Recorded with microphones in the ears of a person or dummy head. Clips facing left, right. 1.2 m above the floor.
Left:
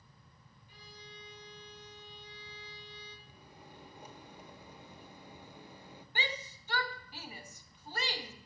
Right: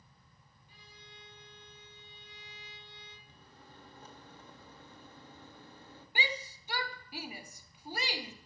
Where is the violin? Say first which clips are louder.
Left 5 dB; 65° left (ahead or behind), 1.9 m.